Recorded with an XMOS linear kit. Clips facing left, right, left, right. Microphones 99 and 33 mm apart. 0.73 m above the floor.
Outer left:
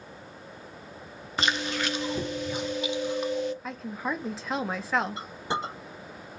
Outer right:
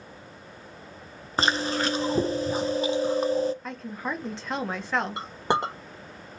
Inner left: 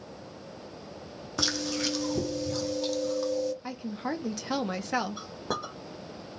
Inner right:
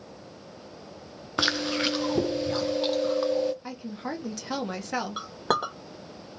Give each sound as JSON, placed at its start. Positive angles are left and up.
{"t": 1.4, "sound": "chewing", "side_deg": -40, "distance_m": 0.7}
{"t": 3.6, "sound": "a woman speaking", "side_deg": 5, "distance_m": 1.1}
{"t": 5.2, "sound": "a clink", "side_deg": -80, "distance_m": 1.8}